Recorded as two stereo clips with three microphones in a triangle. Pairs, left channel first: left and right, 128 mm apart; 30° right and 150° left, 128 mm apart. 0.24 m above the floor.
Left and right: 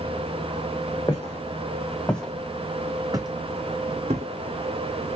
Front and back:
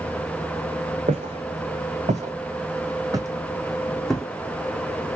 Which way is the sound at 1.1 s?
150° left.